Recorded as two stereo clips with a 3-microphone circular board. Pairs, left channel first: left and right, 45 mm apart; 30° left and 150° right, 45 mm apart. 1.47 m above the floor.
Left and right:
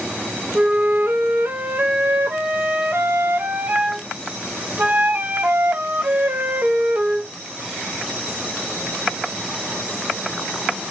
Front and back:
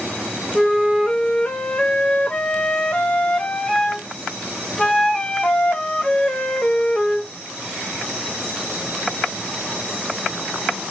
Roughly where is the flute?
Ahead right.